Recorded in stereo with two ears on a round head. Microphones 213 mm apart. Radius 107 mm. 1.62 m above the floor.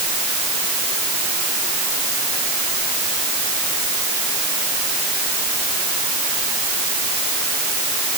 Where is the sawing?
No sawing in this recording.